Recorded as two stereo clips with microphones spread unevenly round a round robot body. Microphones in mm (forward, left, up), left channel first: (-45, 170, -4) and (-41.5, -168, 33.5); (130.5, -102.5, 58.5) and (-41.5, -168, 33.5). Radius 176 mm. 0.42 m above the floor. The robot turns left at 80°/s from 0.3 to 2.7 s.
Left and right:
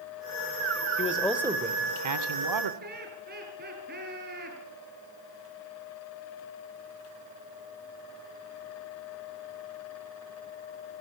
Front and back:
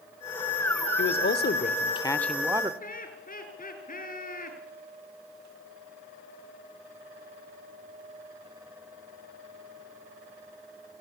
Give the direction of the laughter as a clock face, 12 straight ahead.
1 o'clock.